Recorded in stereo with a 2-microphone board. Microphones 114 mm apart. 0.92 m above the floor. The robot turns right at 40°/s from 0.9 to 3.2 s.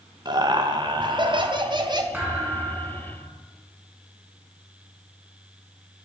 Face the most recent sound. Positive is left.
turn(degrees=-125)